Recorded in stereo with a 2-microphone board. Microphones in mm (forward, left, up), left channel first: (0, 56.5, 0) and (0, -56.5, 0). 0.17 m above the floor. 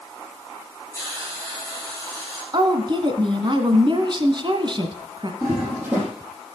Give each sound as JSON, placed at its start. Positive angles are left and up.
{"t": 0.9, "sound": "a hiss", "side_deg": 20, "distance_m": 6.5}
{"t": 2.5, "sound": "a woman speaking", "side_deg": -45, "distance_m": 1.4}
{"t": 5.4, "sound": "a toilet flushing", "side_deg": -15, "distance_m": 5.5}